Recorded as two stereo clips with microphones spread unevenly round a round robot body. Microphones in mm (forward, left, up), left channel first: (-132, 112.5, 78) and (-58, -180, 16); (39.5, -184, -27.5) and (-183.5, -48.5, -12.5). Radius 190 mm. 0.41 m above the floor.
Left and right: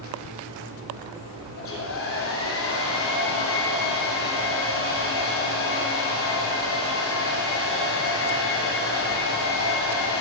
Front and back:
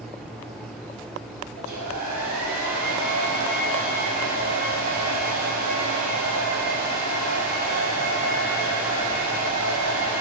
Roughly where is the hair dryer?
Behind left.